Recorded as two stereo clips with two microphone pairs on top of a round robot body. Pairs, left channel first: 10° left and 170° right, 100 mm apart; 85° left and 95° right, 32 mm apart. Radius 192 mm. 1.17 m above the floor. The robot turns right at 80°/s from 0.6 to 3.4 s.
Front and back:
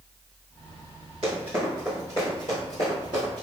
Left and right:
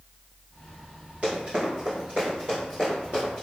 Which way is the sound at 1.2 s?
135° right.